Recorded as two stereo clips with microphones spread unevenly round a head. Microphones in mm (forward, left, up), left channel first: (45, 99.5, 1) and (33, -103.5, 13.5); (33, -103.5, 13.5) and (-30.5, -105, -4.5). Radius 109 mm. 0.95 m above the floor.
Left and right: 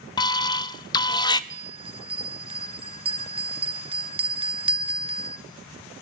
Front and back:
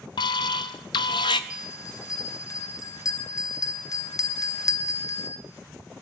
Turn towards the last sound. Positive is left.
turn(degrees=-30)